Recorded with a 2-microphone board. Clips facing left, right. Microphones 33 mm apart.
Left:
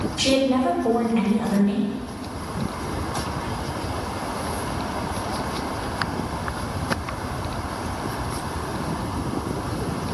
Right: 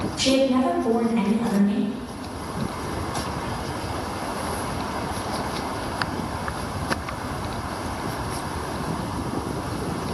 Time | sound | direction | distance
0.2 | a woman speaking | 55° left (ahead or behind) | 2 m